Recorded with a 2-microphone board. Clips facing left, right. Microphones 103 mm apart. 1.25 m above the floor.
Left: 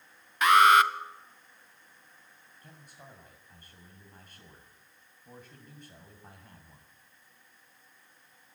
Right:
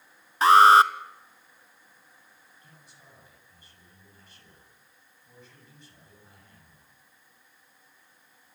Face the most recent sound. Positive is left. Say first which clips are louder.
# left 6 dB
turn(degrees=45)  # may be behind; listen again after turning